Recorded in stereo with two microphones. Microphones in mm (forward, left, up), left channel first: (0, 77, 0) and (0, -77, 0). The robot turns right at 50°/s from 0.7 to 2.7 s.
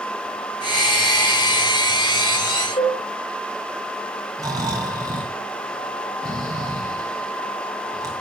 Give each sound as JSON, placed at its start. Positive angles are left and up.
{"t": 2.8, "sound": "a cowbell", "side_deg": 40, "distance_m": 8.5}
{"t": 4.4, "sound": "snoring", "side_deg": -20, "distance_m": 4.0}